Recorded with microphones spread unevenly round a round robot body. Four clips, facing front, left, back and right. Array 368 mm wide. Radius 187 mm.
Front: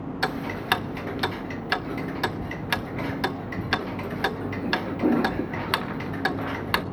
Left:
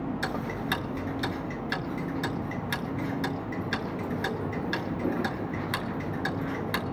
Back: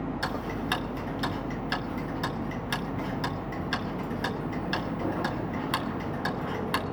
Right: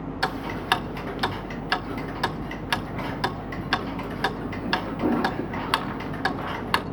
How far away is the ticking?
About 0.6 m.